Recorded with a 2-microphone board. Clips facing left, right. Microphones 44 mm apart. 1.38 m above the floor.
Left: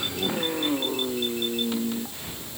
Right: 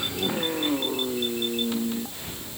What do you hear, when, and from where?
Only background noise.